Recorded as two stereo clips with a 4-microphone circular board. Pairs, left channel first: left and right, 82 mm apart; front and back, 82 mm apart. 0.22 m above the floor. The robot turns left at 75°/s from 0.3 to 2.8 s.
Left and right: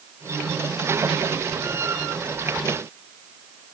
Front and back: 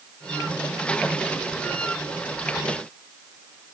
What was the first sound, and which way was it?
Only background noise.